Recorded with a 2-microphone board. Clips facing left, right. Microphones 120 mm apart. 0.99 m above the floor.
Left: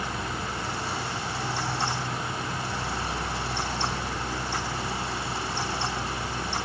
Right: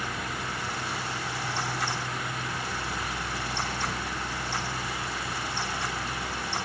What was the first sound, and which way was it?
Only background noise.